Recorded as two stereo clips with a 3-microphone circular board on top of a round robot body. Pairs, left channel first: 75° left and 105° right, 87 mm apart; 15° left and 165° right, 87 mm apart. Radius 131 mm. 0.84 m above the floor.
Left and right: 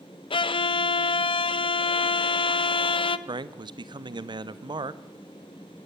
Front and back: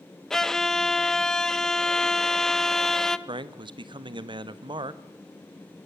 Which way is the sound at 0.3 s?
100° left.